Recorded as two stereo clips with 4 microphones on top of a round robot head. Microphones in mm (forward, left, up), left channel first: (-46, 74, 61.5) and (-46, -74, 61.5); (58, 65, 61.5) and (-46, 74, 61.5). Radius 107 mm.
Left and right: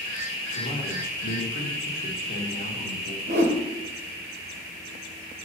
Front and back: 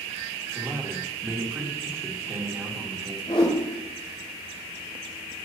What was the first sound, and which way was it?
A man speaking, 110° left.